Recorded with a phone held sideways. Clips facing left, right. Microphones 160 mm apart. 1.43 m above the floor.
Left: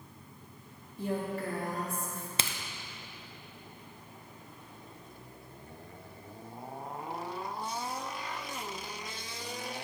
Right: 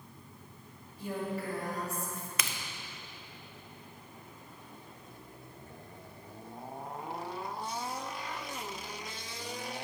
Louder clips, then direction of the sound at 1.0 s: Left 2 dB; 50° left (ahead or behind).